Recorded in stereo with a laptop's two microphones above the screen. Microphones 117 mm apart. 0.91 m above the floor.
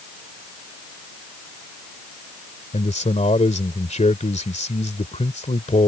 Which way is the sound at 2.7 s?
80° left.